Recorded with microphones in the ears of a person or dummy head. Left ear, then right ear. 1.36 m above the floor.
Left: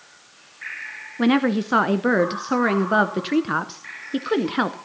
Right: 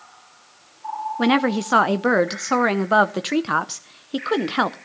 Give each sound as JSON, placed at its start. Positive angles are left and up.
{"t": 1.2, "sound": "a woman speaking", "side_deg": -20, "distance_m": 0.5}